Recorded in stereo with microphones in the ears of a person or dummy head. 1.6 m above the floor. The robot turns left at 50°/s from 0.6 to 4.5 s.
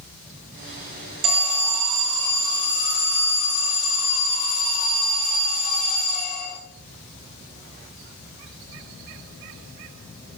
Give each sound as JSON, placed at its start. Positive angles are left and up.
{"t": 1.2, "sound": "an alarm", "azimuth_deg": -140, "distance_m": 1.3}